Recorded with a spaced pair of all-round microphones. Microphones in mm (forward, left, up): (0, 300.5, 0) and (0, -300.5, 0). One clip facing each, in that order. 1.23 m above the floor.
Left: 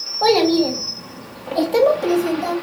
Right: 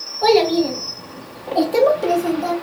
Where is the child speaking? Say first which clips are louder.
Even; 70° left (ahead or behind), 1.2 m; by 2.5 s 10° left (ahead or behind), 1.1 m.